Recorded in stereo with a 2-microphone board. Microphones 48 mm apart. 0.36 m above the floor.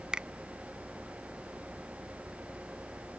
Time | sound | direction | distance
0.1 | a finger snap | 20° right (ahead or behind) | ?